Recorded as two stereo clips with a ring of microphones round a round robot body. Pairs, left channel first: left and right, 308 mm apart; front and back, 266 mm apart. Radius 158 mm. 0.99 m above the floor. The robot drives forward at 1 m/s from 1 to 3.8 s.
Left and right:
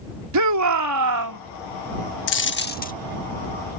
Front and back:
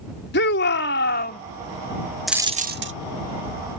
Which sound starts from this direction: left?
A dropped coin, at 2.3 s.